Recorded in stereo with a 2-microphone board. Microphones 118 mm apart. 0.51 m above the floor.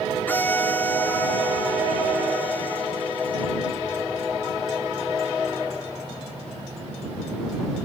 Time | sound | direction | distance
0.3 | a violin | 15° left (ahead or behind) | ?